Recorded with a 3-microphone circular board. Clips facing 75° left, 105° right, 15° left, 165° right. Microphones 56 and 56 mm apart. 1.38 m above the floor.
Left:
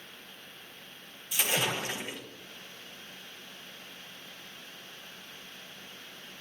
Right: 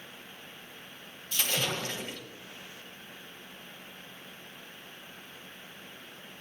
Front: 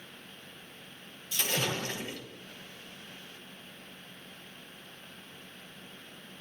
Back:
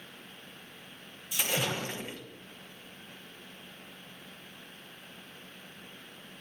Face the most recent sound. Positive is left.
turn(degrees=135)